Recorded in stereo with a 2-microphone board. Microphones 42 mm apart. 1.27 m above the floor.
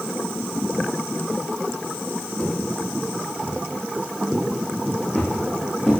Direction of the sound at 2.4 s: 25° left (ahead or behind).